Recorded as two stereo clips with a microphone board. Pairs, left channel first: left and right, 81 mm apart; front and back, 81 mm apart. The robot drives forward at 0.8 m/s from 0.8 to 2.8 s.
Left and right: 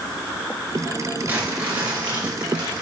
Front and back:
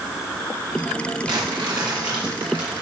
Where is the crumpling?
160° right, 3.5 m; by 2.8 s 165° right, 5 m.